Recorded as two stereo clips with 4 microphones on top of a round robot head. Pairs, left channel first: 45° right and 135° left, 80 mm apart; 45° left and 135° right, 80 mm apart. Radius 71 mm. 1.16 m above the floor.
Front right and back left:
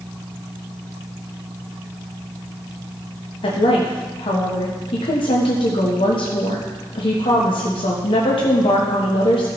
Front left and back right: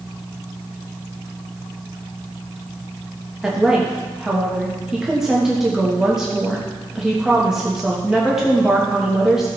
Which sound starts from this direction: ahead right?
A woman speaking, at 3.4 s.